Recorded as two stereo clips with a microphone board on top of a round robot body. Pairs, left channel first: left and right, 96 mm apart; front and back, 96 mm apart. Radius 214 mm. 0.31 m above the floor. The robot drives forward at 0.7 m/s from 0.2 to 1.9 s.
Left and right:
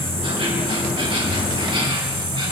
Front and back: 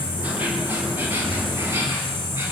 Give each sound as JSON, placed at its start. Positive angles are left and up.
{"t": 0.0, "sound": "an insect", "azimuth_deg": -105, "distance_m": 6.5}